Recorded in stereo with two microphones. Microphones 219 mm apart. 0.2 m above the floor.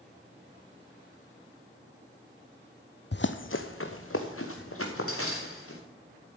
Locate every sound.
3.1 s running footsteps: 55° left (ahead or behind), 0.6 m; by 5.8 s 85° left, 3 m